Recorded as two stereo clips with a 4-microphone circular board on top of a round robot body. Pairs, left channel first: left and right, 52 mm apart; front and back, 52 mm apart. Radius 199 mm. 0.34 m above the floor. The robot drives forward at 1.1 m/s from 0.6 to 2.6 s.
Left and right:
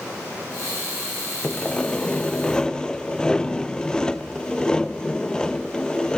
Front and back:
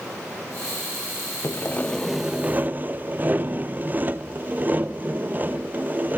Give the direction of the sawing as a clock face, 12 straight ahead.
11 o'clock.